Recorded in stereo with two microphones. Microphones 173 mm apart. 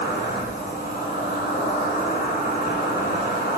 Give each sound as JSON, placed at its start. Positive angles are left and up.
{"t": 0.0, "sound": "an insect", "side_deg": 75, "distance_m": 9.0}